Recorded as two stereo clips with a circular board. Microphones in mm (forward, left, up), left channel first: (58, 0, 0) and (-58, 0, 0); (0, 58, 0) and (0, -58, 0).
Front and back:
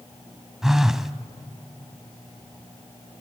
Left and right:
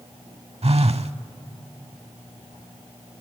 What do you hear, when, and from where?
0.6 s a phone buzzing: 95° right, 0.6 m